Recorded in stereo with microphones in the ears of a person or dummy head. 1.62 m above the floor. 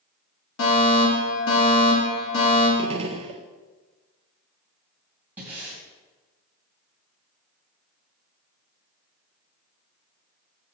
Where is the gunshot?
35° right (ahead or behind), 0.7 m.